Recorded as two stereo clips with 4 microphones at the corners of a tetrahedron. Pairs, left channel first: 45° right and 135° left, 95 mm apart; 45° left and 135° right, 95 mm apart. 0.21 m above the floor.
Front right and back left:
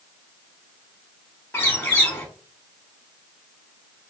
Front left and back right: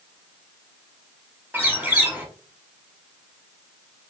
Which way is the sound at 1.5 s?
90° right.